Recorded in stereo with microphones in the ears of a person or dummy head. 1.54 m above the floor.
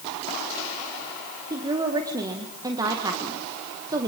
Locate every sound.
1.5 s a woman speaking: 25° right (ahead or behind), 1.7 m